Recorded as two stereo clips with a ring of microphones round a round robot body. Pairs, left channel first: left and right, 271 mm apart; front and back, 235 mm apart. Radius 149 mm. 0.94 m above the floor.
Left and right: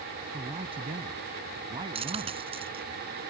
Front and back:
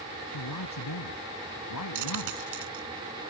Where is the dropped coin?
160° right.